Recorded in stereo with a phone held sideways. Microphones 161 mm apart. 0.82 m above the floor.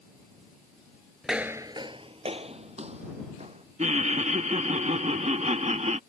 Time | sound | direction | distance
1.2 | footsteps | centre (ahead or behind) | ?
3.8 | laughter | 45° right (ahead or behind) | ?